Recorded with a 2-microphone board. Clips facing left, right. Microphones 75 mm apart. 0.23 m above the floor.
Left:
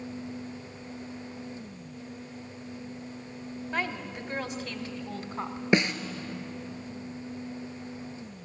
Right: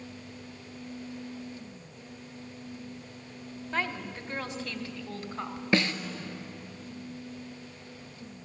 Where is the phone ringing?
I don't hear a phone ringing.